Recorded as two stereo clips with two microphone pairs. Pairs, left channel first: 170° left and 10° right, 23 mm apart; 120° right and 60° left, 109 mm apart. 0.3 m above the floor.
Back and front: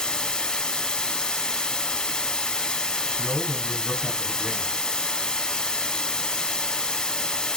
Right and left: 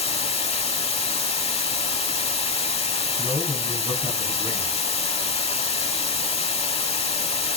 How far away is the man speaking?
About 2.5 m.